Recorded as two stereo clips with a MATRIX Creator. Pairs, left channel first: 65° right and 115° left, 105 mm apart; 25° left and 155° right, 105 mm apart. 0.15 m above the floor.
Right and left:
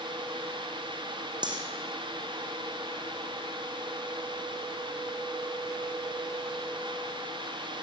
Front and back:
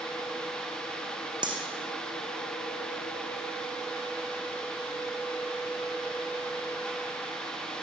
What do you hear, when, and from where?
1.4 s cutlery clinking: 160° left, 4.5 m